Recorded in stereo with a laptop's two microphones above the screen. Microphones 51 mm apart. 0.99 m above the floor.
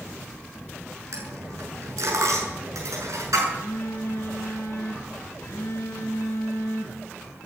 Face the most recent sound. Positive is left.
turn(degrees=60)  # may be behind; listen again after turning